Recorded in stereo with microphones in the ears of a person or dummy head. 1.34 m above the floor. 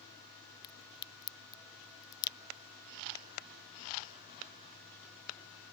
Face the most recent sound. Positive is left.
turn(degrees=25)  # may be behind; listen again after turning